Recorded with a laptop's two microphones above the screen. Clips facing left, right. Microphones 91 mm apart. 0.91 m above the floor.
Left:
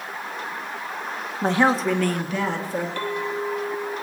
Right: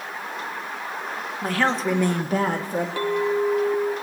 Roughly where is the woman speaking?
Left.